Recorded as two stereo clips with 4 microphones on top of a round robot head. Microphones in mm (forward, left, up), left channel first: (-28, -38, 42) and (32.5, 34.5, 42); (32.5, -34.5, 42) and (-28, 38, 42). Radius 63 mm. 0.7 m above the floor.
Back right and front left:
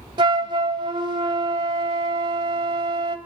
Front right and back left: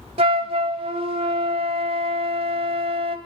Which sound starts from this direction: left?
A flute, at 0.2 s.